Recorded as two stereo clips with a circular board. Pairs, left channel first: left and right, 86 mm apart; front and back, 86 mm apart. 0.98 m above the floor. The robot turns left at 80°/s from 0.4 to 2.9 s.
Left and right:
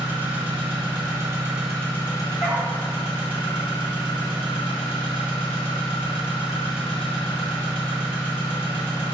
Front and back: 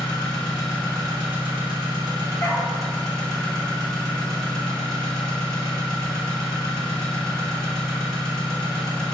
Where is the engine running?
75° right, 1.1 m; by 9.1 s 85° left, 1.1 m.